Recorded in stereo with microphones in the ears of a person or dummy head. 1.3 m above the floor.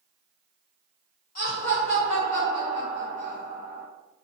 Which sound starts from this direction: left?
Laughter, at 1.4 s.